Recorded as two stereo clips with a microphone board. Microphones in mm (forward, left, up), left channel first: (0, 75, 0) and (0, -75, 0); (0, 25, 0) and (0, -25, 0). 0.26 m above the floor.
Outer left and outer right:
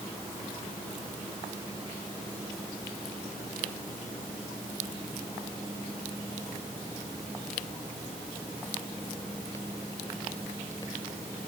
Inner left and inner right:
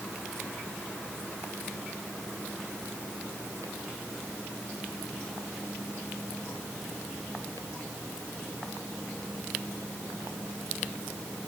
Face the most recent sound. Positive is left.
No sound to turn to.